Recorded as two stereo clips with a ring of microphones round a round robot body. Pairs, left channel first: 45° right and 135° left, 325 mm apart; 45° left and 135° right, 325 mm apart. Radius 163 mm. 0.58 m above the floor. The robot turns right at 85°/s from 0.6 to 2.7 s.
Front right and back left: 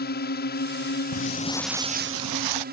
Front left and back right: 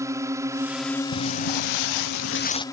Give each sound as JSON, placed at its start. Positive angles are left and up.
{"t": 0.0, "sound": "a drone", "azimuth_deg": -65}
{"t": 1.1, "sound": "footsteps", "azimuth_deg": 0}